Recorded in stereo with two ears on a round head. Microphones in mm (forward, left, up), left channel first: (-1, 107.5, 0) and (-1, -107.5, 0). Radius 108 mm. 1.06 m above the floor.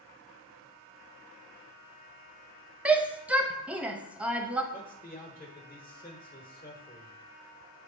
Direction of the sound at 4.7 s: 30° left (ahead or behind).